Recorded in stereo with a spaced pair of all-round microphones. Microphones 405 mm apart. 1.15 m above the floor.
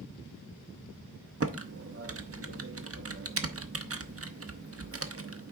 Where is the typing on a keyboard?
35° right (ahead or behind), 0.6 m.